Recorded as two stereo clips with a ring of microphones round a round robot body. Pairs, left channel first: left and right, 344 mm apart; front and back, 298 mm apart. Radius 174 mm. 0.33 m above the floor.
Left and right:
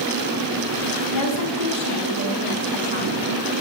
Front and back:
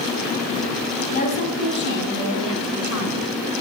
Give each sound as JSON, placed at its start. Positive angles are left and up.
{"t": 1.1, "sound": "a woman speaking", "azimuth_deg": 60, "distance_m": 3.0}